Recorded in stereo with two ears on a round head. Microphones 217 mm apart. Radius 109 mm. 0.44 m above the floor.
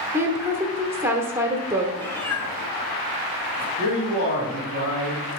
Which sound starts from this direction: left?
A man speaking, at 3.8 s.